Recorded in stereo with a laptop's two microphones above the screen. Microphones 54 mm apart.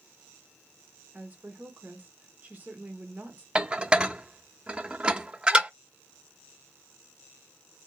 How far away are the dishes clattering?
About 0.5 m.